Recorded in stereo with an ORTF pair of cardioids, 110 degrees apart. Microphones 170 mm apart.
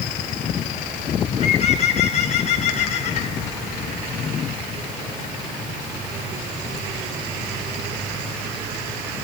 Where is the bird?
40° left, 8 m.